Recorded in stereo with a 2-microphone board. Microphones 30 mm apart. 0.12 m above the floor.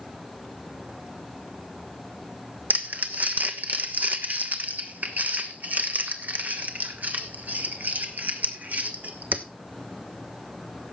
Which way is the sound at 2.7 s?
65° right (ahead or behind).